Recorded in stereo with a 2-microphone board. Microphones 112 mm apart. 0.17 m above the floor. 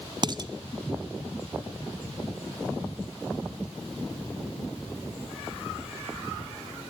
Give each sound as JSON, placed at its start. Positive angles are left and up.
{"t": 0.2, "sound": "dishes clattering", "side_deg": -40, "distance_m": 0.9}